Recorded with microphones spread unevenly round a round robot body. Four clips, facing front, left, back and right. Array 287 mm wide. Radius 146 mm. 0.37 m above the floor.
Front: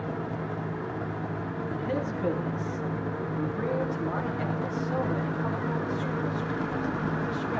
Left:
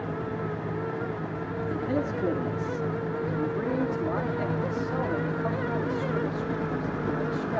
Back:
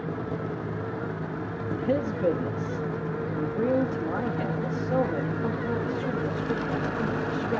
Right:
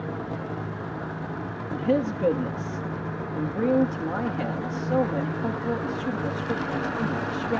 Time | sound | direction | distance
1.7 | a man speaking | 90° right | 8 m